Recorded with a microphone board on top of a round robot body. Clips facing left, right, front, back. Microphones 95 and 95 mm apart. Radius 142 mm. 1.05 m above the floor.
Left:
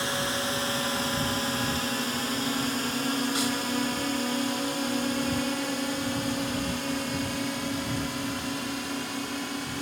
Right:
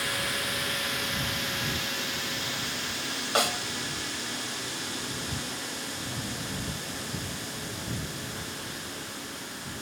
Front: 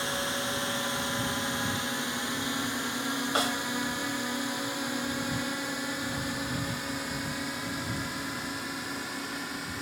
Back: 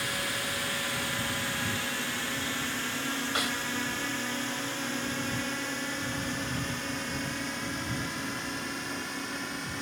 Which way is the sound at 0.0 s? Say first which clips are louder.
Left 4 dB, front 2 dB; 50° left.